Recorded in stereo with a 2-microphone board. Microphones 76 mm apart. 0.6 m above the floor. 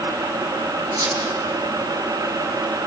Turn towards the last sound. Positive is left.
turn(degrees=-55)  # may be behind; listen again after turning